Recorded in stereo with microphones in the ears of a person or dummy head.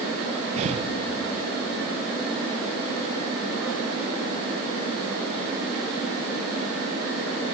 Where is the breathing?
30° right (ahead or behind), 0.8 m.